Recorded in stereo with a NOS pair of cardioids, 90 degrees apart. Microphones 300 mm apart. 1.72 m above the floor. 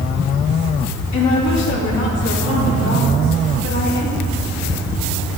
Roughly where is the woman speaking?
Left.